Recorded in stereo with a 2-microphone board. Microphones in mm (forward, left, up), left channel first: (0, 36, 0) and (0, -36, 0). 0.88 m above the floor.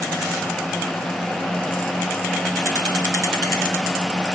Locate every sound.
Only background noise.